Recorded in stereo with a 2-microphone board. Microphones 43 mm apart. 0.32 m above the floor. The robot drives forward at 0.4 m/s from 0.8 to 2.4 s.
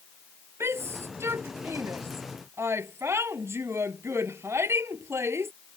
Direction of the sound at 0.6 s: 80° right.